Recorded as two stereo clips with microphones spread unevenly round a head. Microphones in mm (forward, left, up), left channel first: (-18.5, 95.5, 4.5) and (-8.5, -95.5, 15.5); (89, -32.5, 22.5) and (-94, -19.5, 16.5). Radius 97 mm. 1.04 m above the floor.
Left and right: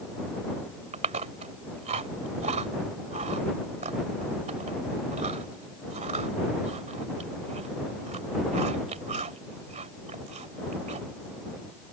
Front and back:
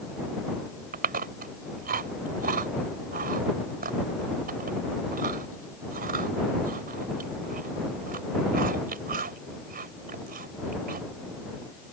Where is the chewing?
140° right.